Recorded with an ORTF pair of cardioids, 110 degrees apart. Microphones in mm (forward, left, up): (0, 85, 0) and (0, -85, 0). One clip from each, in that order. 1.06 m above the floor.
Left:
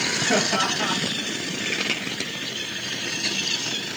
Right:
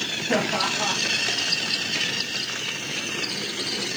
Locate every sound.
0.3 s laughter: 10° left, 0.8 m